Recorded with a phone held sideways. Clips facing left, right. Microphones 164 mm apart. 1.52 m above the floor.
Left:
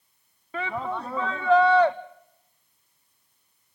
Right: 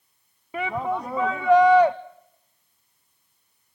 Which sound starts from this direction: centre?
A shout, at 0.5 s.